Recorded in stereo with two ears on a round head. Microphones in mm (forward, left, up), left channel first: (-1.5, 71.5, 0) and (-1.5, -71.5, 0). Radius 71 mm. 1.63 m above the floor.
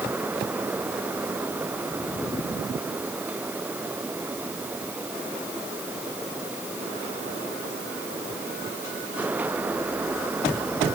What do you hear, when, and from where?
Only background noise.